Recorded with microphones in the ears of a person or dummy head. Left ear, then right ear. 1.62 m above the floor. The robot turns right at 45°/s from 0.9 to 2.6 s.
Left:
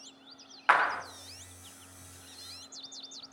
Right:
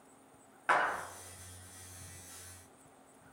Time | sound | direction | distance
0.7 | a clap | 35° left (ahead or behind) | 0.5 m